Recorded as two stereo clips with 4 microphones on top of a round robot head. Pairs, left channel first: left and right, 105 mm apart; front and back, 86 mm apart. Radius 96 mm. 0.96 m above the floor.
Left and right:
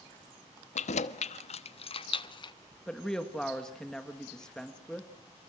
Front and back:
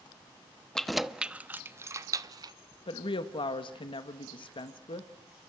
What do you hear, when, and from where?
0.8 s keys jangling: 85° left, 1.0 m; by 2.5 s 135° left, 1.3 m
2.9 s a woman speaking: 5° left, 1.6 m